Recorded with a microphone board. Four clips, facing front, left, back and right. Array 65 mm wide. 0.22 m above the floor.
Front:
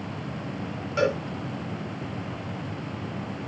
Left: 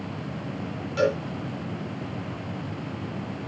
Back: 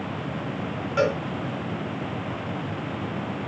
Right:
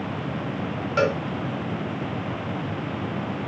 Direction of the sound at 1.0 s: 100° right.